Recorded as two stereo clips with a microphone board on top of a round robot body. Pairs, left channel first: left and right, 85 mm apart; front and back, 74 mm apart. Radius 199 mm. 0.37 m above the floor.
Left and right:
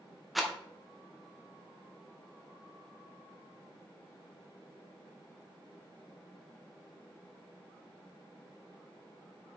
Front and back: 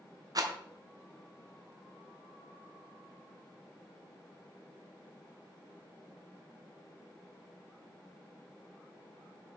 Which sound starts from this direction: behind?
A rattle, at 0.3 s.